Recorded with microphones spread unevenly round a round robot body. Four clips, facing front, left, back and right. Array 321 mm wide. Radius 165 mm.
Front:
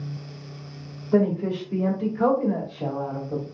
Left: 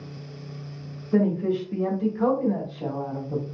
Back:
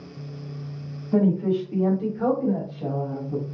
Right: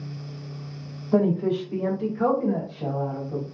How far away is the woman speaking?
About 1.6 m.